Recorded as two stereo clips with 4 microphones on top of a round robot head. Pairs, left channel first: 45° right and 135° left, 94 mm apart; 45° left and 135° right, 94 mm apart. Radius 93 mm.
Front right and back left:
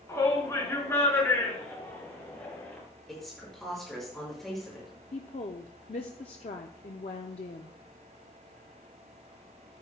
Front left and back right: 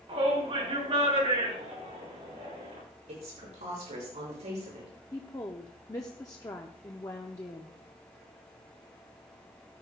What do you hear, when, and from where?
0.1 s a shout: 105° right, 3.5 m; by 2.8 s 115° right, 5.5 m
3.1 s a woman speaking: 130° right, 5.5 m
5.1 s a woman speaking: 15° right, 0.5 m